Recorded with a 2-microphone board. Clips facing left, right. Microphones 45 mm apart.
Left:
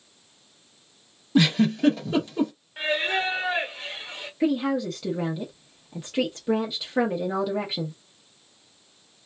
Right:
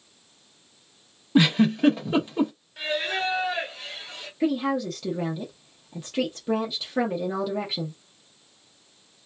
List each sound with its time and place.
1.4 s a giggle: 20° right (ahead or behind), 0.8 m
2.8 s singing: 30° left (ahead or behind), 1.1 m
4.4 s a woman speaking: 10° left (ahead or behind), 0.8 m